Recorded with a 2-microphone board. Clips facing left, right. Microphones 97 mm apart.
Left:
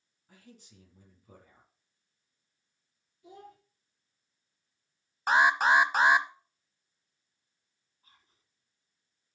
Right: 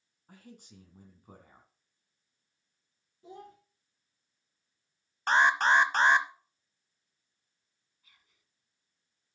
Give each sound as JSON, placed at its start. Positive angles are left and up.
{"t": 0.3, "sound": "a man speaking", "side_deg": -55, "distance_m": 2.5}
{"t": 3.2, "sound": "a child speaking", "side_deg": -35, "distance_m": 3.0}
{"t": 5.3, "sound": "an alarm", "side_deg": 10, "distance_m": 0.9}
{"t": 8.0, "sound": "whispering", "side_deg": 35, "distance_m": 2.0}